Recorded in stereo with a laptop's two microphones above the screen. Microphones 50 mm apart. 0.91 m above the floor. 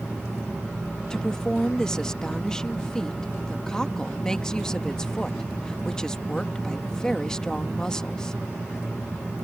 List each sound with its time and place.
1.1 s a woman speaking: 15° left (ahead or behind)